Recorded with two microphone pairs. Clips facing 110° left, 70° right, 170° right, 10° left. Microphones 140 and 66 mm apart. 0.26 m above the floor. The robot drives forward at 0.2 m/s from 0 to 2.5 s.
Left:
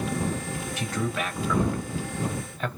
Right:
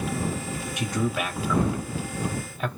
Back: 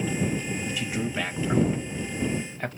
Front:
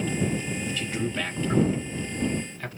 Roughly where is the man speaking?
Behind right.